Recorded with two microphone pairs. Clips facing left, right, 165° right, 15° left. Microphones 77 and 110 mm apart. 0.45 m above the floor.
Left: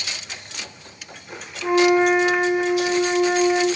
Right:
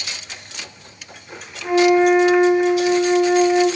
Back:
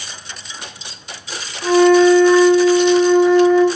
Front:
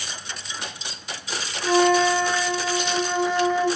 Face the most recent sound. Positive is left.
turn(degrees=160)